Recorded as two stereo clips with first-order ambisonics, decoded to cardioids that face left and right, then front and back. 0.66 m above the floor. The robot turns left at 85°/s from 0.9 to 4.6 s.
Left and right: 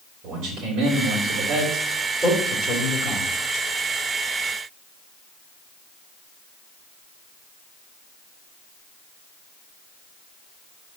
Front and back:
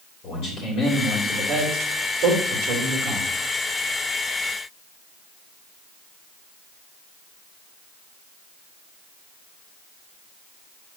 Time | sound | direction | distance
0.2 | a man speaking | 45° right | 3 m